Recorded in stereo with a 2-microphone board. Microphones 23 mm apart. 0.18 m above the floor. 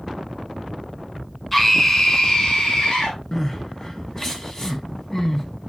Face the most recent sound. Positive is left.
turn(degrees=25)  # may be behind; listen again after turning